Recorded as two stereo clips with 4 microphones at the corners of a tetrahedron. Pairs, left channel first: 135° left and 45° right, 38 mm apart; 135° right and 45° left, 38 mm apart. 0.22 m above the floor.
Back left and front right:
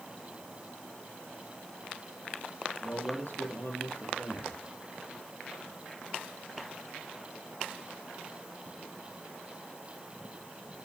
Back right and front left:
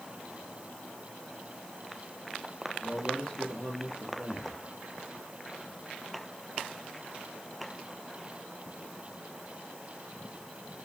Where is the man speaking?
160° left, 3.5 m.